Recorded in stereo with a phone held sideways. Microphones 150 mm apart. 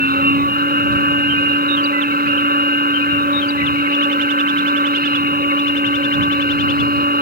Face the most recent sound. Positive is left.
turn(degrees=-85)